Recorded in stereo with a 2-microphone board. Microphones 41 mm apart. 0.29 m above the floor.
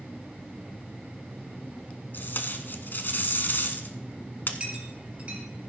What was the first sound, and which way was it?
Tape being pulled, 60° left (ahead or behind).